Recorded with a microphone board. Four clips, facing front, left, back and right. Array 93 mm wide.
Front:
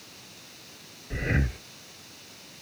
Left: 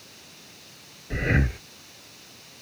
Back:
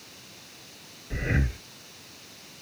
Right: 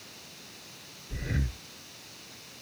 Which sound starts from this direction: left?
Breathing, at 1.1 s.